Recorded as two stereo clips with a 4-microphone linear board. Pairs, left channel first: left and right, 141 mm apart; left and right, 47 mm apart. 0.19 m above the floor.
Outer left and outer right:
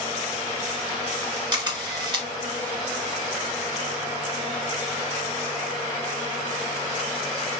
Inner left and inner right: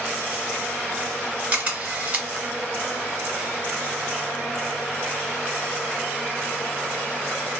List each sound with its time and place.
1.5 s a camera shutter: 30° right (ahead or behind), 1.2 m